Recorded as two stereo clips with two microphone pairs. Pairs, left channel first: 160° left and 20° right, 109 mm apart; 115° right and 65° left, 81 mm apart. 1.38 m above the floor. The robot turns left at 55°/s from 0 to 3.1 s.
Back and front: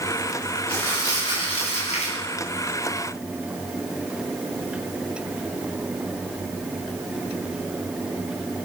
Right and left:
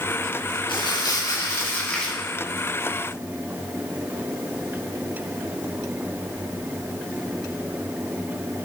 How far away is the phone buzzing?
I don't hear a phone buzzing.